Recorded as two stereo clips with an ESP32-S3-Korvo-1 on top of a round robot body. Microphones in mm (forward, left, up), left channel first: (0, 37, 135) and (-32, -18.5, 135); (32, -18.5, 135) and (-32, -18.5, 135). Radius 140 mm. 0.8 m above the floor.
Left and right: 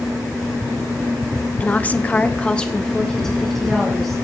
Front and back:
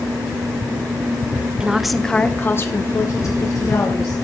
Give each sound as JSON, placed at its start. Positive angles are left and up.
{"t": 1.6, "sound": "a woman speaking", "azimuth_deg": 110, "distance_m": 1.0}